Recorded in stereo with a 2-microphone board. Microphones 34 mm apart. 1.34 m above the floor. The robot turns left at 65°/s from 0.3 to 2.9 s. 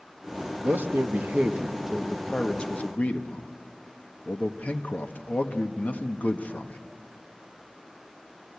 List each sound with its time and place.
0.6 s a man speaking: 85° right, 1.4 m; by 6.8 s 130° left, 1.4 m